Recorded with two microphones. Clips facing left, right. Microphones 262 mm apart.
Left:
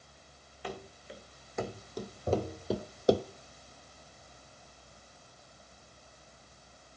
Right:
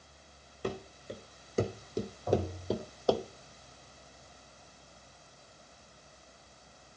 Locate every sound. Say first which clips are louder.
0.6 s running footsteps: right 5 dB; 45° right (ahead or behind), 2.0 m; by 3.2 s 25° left (ahead or behind), 0.8 m
2.3 s tapping: even; 25° left (ahead or behind), 2 m